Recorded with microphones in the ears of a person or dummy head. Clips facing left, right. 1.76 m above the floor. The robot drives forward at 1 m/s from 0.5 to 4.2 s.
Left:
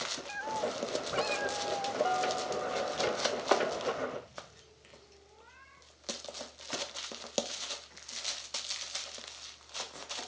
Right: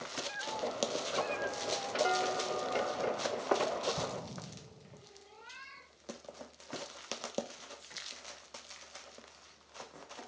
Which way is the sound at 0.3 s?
55° left (ahead or behind).